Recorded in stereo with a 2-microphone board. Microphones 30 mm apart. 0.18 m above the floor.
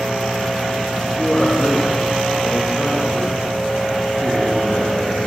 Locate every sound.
1.2 s a man speaking: 10° left (ahead or behind), 4.5 m